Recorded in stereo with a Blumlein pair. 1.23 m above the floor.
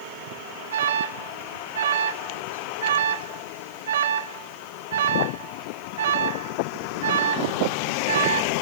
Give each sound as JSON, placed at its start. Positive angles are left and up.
{"t": 0.7, "sound": "an alarm", "azimuth_deg": -65, "distance_m": 1.8}